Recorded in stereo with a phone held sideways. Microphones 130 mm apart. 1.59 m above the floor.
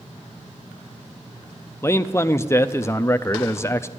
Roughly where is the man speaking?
Left.